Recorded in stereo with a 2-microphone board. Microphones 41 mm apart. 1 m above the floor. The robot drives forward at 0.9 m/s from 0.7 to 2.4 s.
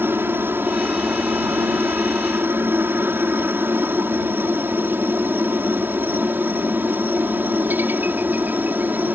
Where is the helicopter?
60° right (ahead or behind); by 9.2 s 45° right (ahead or behind).